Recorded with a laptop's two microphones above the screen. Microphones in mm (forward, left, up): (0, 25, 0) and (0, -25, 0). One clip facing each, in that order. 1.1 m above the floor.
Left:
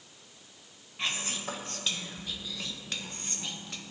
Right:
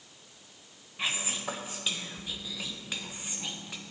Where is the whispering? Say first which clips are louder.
Right 1 dB; 10° right (ahead or behind), 1.1 m.